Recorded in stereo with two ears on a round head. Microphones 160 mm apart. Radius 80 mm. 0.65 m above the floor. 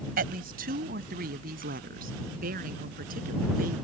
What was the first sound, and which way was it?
A woman speaking, 55° right (ahead or behind).